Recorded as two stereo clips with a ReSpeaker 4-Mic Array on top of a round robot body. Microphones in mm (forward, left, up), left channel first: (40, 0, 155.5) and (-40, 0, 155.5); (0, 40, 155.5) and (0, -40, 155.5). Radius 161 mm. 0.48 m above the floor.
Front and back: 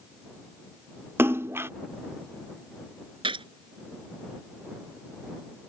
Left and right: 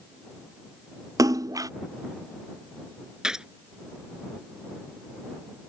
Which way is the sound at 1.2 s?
125° right.